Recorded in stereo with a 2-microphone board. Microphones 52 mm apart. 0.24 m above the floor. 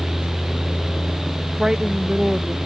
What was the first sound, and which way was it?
A woman speaking, 10° right (ahead or behind).